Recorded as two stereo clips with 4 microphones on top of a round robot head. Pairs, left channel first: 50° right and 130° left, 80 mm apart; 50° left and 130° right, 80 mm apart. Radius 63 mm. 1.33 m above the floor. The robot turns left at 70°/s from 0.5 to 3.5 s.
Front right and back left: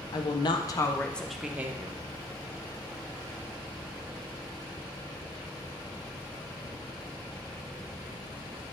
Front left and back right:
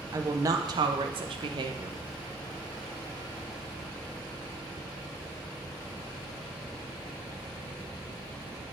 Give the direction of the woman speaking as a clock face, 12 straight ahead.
3 o'clock.